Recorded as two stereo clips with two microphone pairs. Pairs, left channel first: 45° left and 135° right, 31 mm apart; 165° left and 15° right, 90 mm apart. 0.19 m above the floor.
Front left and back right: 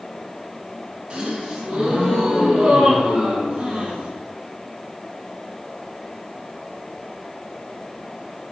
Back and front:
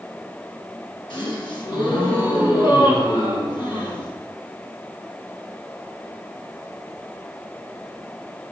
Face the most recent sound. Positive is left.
turn(degrees=175)